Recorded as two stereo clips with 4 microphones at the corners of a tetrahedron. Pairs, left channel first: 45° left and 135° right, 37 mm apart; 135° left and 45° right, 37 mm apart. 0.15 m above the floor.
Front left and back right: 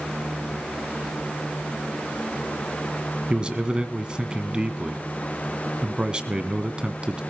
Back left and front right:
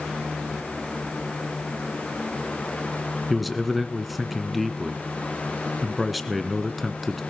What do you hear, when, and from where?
3.3 s a man speaking: 135° right, 1.5 m